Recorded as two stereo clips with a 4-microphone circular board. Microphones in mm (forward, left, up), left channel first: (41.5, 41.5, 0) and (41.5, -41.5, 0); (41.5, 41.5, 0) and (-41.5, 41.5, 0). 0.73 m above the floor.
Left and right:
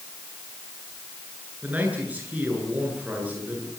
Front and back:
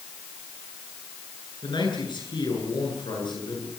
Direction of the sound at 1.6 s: 15° right.